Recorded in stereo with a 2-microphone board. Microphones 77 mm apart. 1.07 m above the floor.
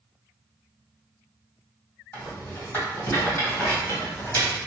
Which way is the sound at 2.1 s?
30° left (ahead or behind).